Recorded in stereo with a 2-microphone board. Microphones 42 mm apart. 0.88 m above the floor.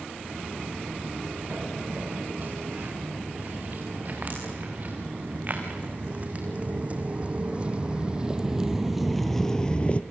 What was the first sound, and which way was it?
Footsteps, 45° right (ahead or behind).